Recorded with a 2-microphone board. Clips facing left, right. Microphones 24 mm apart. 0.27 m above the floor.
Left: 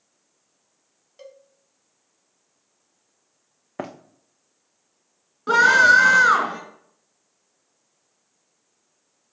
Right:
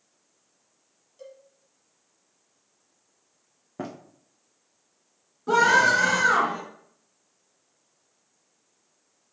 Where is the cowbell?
50° left (ahead or behind), 0.9 m.